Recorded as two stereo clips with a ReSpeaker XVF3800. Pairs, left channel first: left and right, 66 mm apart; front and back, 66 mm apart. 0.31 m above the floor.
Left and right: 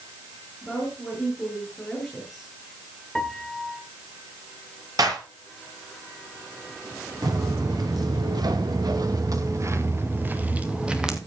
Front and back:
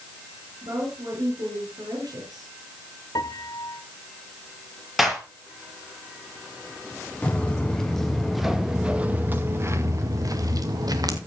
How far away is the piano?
About 0.8 m.